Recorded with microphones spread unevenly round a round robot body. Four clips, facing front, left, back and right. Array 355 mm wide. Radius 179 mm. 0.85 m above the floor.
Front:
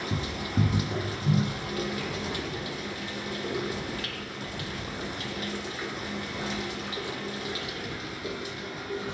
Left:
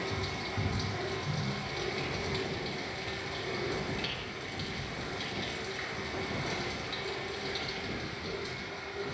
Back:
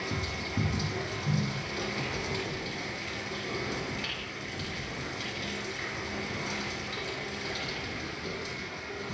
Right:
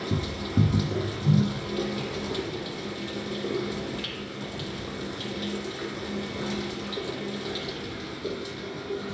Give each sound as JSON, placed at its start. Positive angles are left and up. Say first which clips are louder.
{"t": 0.0, "sound": "running water", "louder": "right 5 dB, front 3 dB", "azimuth_deg": -75, "distance_m": 3.5}